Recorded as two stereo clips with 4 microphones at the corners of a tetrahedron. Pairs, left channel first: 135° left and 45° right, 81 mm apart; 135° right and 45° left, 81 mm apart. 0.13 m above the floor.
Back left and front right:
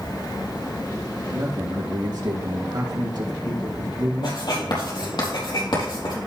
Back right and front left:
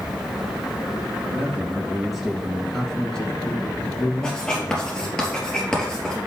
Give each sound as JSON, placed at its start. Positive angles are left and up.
{"t": 1.3, "sound": "a man speaking", "azimuth_deg": -30, "distance_m": 3.0}
{"t": 4.2, "sound": "writing", "azimuth_deg": 145, "distance_m": 4.0}